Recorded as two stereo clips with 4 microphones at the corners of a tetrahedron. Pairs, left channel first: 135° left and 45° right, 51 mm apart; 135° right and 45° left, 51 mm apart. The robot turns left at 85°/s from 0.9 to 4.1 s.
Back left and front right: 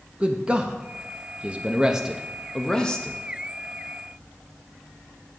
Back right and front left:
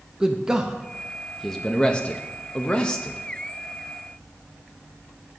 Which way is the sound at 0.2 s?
10° right.